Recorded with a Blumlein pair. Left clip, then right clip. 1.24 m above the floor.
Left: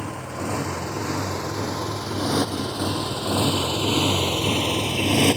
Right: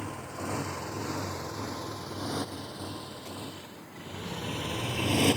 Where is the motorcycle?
20° left; by 5.4 s 75° left.